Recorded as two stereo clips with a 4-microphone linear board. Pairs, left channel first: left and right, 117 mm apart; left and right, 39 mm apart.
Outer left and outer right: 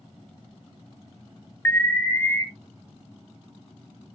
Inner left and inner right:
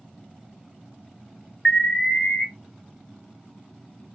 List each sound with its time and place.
1.6 s an alarm: 20° left (ahead or behind), 0.7 m